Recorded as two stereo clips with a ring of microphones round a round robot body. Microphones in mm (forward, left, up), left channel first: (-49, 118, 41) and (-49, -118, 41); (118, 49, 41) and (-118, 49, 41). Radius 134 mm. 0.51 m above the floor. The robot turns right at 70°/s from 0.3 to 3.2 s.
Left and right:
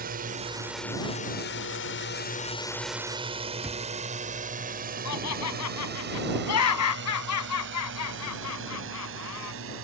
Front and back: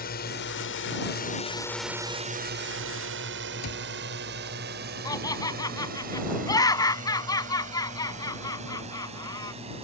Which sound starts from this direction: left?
Laughter, at 5.0 s.